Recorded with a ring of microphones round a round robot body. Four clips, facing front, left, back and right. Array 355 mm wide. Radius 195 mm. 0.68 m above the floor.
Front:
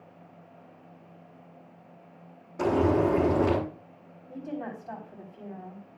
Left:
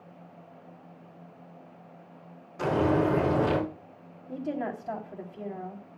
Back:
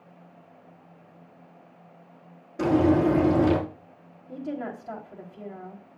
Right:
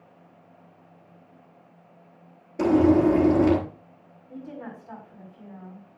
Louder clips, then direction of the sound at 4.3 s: Left 6 dB, back 3 dB; 120° left.